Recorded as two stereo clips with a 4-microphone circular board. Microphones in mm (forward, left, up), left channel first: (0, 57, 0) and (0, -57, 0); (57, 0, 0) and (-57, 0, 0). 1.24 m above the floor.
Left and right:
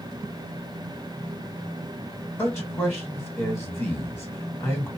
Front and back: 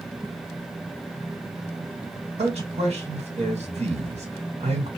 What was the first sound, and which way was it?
A man speaking, 160° left.